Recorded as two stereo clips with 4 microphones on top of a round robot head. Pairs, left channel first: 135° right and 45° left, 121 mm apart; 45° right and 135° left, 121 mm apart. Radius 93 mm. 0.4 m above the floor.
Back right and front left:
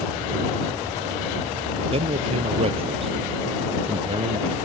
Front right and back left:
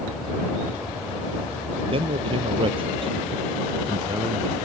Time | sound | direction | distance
1.9 | a man speaking | 85° left | ?